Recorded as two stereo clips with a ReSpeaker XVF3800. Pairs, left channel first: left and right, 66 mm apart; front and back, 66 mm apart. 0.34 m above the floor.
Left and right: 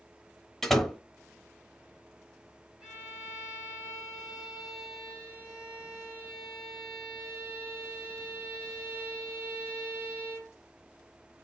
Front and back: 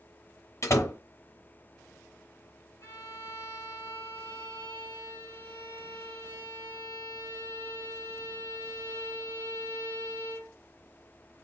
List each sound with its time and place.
0.6 s a door slam: 5° left, 0.8 m
2.8 s a violin: 10° right, 2.5 m